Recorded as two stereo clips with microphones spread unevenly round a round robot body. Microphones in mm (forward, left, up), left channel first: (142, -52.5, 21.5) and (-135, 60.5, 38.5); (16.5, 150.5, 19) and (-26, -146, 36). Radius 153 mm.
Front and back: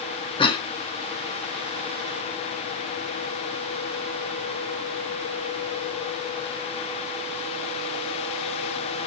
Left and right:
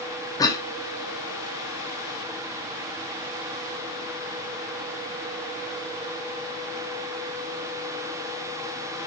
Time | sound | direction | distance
0.4 | a cough | 25° left | 0.6 m